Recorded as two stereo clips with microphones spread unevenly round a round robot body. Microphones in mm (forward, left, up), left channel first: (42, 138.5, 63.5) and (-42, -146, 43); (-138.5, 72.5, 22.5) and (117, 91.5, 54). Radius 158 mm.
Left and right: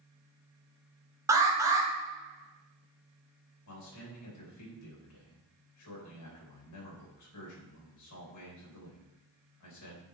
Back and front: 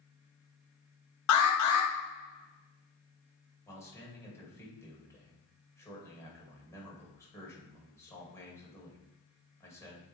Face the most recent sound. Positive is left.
turn(degrees=105)